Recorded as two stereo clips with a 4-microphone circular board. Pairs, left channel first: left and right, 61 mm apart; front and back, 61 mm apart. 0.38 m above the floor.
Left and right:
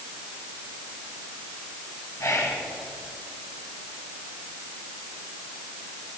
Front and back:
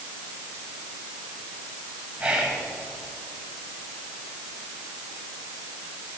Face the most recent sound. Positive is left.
turn(degrees=110)